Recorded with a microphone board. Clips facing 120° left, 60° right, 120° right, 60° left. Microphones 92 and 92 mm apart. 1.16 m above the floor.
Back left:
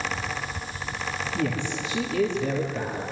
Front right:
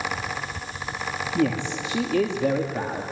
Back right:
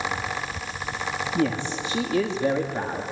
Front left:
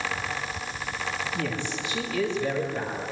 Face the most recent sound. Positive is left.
turn(degrees=-70)